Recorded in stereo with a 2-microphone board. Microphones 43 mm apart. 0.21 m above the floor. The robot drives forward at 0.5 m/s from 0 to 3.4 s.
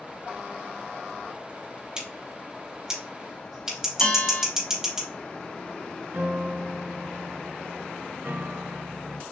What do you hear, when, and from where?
2.0 s scissors: 20° right (ahead or behind), 3.5 m; by 5.0 s 15° right (ahead or behind), 4 m
4.0 s a bell: 30° left (ahead or behind), 1.5 m
6.1 s a piano: 65° right (ahead or behind), 1.9 m